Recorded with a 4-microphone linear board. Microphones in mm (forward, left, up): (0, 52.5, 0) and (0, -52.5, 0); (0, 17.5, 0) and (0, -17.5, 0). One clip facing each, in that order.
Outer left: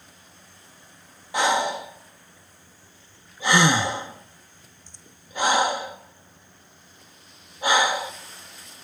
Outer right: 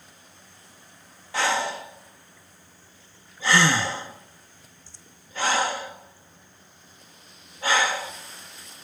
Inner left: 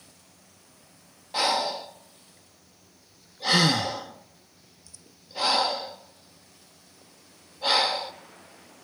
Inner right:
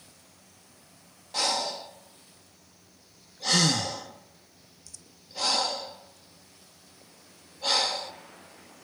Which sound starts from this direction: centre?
Breathing, at 1.3 s.